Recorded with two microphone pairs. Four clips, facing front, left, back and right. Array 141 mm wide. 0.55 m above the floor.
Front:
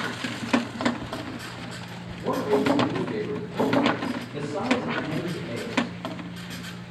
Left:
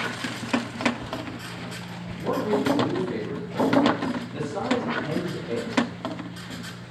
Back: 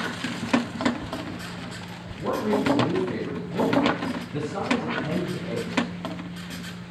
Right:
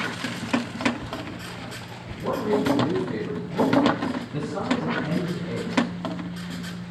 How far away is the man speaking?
About 3 m.